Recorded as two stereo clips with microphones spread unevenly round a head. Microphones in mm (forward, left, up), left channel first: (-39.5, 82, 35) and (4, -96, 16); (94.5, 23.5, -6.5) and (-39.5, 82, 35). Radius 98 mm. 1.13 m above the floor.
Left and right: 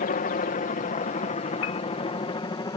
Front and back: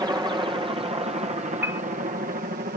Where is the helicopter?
85° left; by 2.8 s 165° left.